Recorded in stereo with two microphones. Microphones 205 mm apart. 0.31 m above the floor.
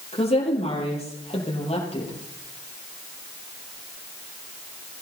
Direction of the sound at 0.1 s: 30° left (ahead or behind).